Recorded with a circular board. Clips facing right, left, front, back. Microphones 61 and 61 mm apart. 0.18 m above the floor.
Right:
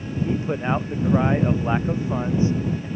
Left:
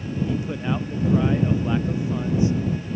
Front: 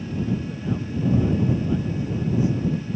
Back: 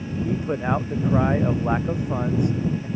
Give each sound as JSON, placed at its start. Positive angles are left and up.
{"t": 0.2, "sound": "a man speaking", "azimuth_deg": -150}